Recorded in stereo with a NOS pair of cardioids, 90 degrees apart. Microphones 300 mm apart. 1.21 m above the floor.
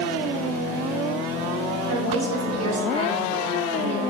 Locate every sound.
1.9 s a woman speaking: 55° right, 2 m